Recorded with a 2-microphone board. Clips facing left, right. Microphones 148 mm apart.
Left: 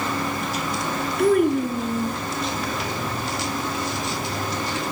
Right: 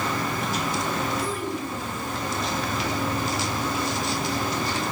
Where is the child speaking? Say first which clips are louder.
Left 11 dB; 60° left (ahead or behind), 3 m.